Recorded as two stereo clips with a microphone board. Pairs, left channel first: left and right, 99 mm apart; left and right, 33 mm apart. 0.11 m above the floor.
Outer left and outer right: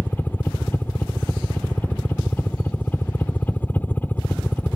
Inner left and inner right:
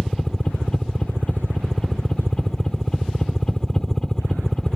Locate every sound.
0.0 s a helicopter: 20° left (ahead or behind)